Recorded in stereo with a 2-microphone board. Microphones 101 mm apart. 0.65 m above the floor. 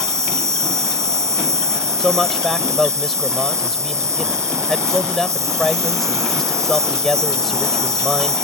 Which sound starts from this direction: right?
An insect, at 0.0 s.